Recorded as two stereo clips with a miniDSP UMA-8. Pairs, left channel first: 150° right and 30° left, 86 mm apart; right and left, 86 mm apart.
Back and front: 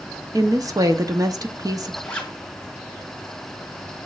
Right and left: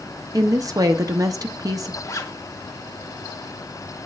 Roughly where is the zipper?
Right.